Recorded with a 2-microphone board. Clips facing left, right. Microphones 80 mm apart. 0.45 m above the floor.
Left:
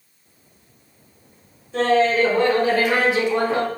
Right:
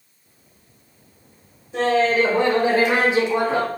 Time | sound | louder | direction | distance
1.7 | laughter | left 1 dB | 15° right (ahead or behind) | 1.7 m